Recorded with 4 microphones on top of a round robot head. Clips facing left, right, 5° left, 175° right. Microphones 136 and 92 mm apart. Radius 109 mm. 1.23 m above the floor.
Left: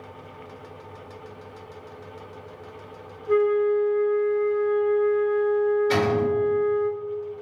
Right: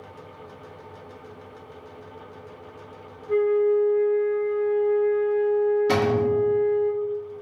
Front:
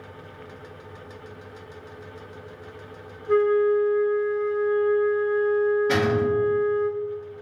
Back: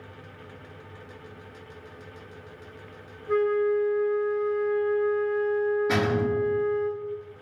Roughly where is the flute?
Left.